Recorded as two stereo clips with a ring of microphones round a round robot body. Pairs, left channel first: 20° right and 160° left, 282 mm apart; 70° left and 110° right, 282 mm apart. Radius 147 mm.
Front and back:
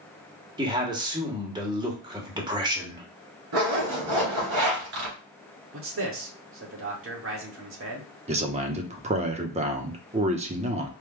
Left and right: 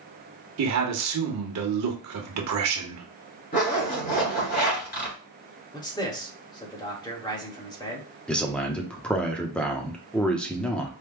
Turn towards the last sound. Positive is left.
turn(degrees=150)